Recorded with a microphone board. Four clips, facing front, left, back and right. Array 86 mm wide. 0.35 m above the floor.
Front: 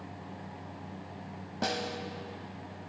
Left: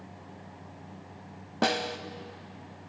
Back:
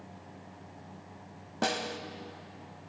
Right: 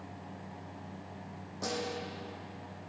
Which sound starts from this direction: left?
A snare drum, at 1.6 s.